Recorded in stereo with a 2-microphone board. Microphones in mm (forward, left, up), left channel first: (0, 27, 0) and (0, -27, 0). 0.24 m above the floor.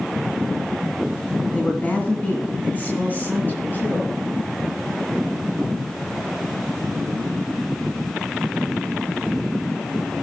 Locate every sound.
1.5 s a woman speaking: 30° left (ahead or behind), 1.9 m; by 4.2 s 35° left (ahead or behind), 3.5 m